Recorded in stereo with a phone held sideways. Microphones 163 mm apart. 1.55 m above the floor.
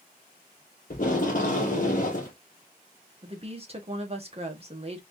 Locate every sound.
0.9 s tape being pulled: 55° left (ahead or behind), 1.5 m
3.2 s a woman speaking: 40° right (ahead or behind), 1.3 m